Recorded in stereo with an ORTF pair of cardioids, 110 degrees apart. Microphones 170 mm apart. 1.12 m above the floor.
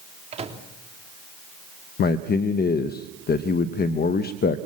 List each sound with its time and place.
0.3 s a microwave: 40° right, 3 m
2.0 s a man speaking: 65° left, 0.9 m